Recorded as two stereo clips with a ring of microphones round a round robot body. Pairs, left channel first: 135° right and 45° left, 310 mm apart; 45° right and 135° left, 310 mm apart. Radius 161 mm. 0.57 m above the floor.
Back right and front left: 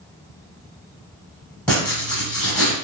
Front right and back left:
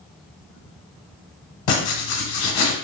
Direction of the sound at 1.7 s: 50° right.